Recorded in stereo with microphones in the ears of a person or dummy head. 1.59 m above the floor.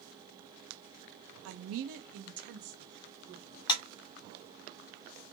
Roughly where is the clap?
Left.